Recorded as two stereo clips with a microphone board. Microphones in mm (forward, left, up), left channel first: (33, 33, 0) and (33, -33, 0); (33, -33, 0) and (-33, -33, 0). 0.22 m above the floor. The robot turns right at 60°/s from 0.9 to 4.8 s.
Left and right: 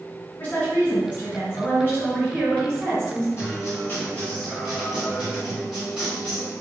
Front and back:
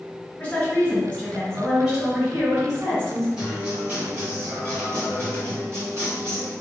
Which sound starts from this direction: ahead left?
A woman speaking, at 0.4 s.